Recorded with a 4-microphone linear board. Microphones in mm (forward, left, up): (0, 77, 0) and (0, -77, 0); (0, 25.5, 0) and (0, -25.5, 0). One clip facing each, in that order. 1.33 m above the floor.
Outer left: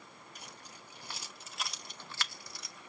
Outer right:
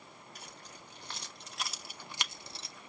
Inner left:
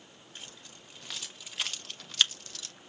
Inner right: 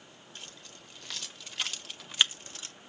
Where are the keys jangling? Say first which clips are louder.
Even, even; 15° left (ahead or behind), 1.4 m; by 2.8 s 30° right (ahead or behind), 0.6 m.